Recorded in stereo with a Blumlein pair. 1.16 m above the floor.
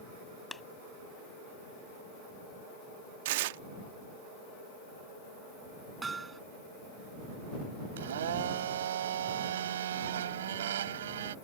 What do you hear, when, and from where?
0.5 s a clap: 10° left
3.2 s tearing paper: 50° right
6.0 s hammering: 15° right
8.0 s a blender: 60° right